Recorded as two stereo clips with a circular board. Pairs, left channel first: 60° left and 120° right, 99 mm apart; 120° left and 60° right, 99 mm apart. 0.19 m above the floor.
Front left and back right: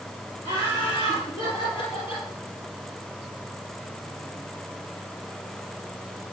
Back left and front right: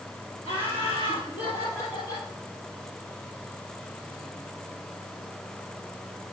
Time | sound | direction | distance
0.4 | laughter | 105° left | 4.5 m